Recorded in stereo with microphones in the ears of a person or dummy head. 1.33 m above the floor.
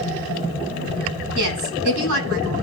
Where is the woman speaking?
80° right, 8.5 m.